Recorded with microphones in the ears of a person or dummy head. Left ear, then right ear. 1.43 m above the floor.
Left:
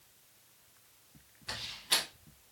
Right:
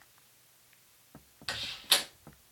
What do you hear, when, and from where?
1.5 s a door slam: 40° right (ahead or behind), 1.6 m